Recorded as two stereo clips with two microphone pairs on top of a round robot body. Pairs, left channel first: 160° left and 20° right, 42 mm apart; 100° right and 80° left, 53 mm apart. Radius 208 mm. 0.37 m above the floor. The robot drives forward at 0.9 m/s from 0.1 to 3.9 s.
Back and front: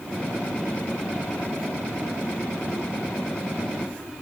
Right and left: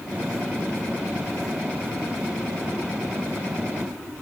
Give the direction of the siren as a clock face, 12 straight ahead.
No siren in this recording.